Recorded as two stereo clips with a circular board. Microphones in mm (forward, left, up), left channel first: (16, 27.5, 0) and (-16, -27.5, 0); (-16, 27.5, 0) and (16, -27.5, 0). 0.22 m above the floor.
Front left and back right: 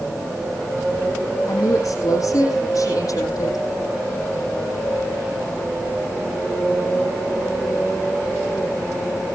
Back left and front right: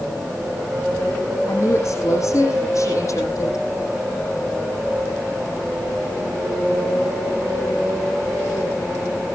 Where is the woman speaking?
85° left, 8 m.